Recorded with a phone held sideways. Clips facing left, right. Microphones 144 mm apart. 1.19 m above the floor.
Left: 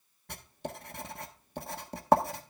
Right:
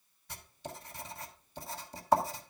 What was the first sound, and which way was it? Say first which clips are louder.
Writing: left 5 dB; 60° left (ahead or behind).